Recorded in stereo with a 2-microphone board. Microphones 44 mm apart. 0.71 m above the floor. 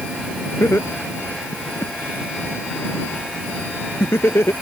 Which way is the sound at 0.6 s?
65° left (ahead or behind).